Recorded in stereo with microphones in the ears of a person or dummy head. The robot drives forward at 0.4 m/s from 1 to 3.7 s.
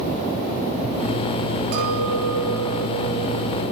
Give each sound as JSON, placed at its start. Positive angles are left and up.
{"t": 1.7, "sound": "a clink", "side_deg": -65, "distance_m": 5.5}